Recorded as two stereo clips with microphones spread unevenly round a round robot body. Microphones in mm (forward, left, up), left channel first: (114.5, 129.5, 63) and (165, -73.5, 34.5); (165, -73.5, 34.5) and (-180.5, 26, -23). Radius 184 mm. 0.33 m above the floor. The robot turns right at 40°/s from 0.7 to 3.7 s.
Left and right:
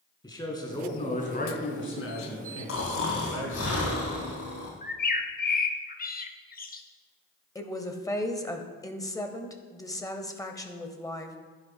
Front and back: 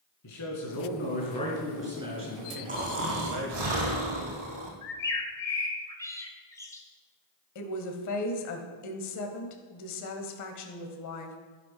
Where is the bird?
75° left, 1.3 m.